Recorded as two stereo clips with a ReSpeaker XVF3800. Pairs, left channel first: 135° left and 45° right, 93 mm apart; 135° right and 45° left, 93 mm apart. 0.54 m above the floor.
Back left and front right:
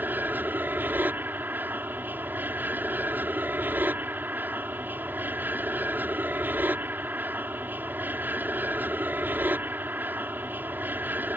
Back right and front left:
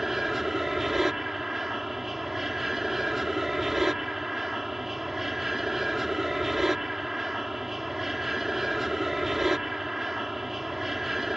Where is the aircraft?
35° right.